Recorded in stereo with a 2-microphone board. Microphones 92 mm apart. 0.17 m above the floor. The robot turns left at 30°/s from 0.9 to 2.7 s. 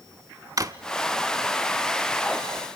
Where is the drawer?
40° right (ahead or behind), 0.7 m.